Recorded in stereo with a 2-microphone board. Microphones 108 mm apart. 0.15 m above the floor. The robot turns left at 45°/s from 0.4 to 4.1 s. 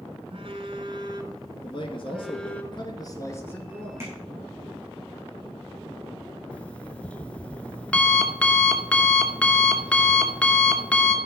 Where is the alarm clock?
10° left (ahead or behind), 0.9 m.